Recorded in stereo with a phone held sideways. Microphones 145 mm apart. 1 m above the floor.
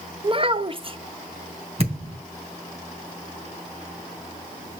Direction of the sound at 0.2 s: 40° right (ahead or behind).